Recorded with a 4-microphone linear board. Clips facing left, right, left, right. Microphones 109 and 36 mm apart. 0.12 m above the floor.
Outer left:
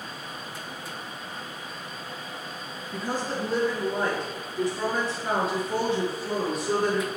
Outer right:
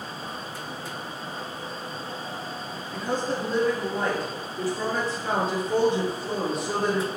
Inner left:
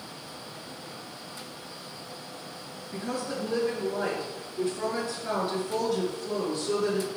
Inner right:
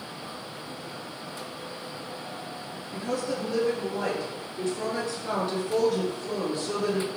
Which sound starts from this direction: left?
A woman speaking, at 2.9 s.